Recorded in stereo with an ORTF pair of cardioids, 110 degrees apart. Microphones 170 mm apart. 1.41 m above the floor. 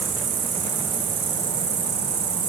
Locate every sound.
0.0 s an insect: 45° right, 1.9 m